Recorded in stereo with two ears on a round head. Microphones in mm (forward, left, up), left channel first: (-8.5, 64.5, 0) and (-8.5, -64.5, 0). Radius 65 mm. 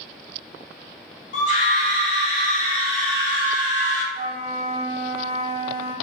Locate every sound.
1.3 s a scream: 55° left (ahead or behind), 1.9 m; by 4.0 s 30° left (ahead or behind), 2.5 m
4.1 s a flute: 35° right (ahead or behind), 0.6 m